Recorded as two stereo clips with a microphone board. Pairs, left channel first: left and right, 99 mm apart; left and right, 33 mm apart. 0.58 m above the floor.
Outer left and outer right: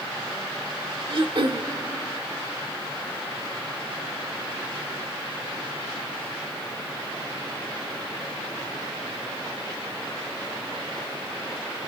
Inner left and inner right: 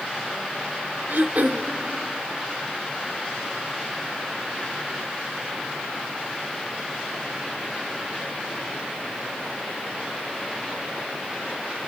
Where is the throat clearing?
60° right (ahead or behind), 1.0 m.